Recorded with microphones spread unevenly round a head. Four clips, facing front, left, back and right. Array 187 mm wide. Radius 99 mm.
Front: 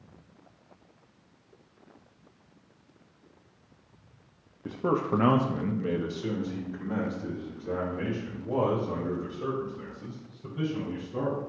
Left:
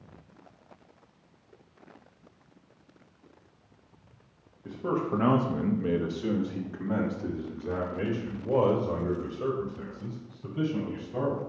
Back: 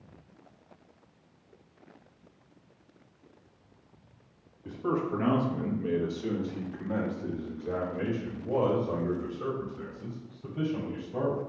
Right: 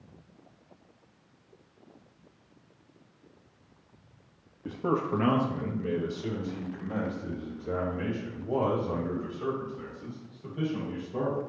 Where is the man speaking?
20° right, 1.0 m; by 11.4 s 95° left, 7 m.